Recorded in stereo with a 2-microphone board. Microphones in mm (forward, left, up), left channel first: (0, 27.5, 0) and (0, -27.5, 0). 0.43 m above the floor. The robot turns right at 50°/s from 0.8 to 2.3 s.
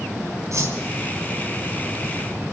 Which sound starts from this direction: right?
A whoosh, at 0.5 s.